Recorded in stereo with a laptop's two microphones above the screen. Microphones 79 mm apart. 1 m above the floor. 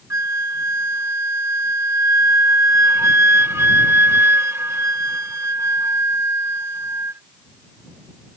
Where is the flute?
35° right (ahead or behind).